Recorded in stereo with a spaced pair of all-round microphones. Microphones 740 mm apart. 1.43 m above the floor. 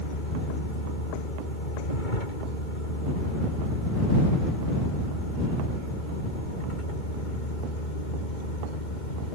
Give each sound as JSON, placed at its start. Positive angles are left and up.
{"t": 0.0, "sound": "a vehicle", "side_deg": 80}